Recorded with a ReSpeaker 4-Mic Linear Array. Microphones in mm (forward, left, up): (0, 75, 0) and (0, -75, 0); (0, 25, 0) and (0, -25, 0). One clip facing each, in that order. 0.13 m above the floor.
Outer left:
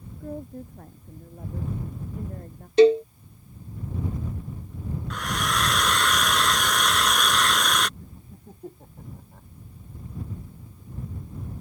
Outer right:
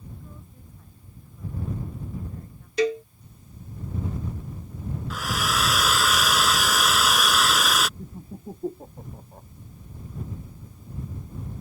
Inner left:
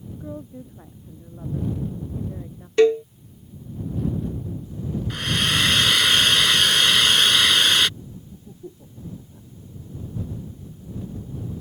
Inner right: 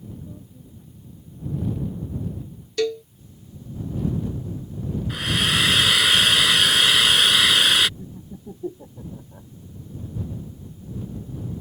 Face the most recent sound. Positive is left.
turn(degrees=-35)  # may be behind; listen again after turning